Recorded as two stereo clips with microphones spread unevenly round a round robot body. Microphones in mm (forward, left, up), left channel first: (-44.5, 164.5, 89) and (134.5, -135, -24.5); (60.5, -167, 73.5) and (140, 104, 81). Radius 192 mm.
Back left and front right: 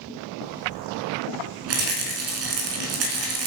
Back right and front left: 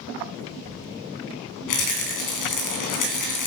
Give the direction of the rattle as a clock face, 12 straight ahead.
4 o'clock.